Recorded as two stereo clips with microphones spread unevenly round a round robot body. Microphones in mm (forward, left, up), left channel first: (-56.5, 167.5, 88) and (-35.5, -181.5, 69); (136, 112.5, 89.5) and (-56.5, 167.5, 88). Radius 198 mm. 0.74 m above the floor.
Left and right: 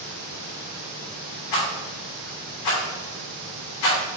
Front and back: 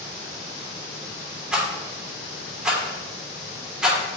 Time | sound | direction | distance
1.5 | a rattle | 75° left | 3 m